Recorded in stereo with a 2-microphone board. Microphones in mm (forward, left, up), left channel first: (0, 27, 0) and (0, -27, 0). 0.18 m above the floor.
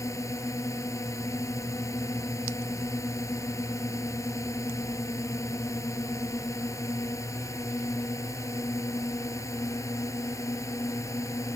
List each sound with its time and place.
0.0 s a drone: 65° left (ahead or behind)